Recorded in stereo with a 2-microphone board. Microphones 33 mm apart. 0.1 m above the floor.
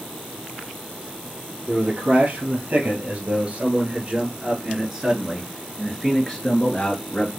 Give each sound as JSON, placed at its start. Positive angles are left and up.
{"t": 1.7, "sound": "a man speaking", "side_deg": -55, "distance_m": 2.5}